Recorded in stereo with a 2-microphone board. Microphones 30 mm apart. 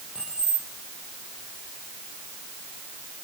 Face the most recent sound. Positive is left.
turn(degrees=-30)  # may be behind; listen again after turning